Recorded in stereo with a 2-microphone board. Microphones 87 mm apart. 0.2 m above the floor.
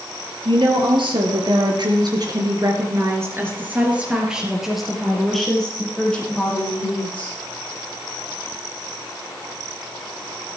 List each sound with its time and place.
0.5 s a woman speaking: 75° right (ahead or behind), 5 m; by 7.3 s 20° left (ahead or behind), 7.5 m